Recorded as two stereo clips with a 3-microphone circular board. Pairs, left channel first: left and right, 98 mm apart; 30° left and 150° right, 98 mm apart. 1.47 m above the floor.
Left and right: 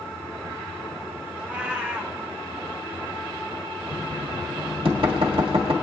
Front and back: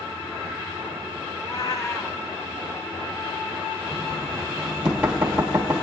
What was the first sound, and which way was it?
A cat meowing, 15° right.